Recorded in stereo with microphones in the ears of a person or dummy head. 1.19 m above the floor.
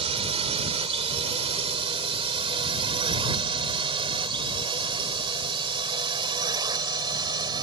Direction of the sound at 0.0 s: 30° right (ahead or behind).